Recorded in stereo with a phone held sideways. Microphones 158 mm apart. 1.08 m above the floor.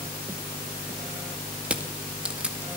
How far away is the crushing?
About 2 m.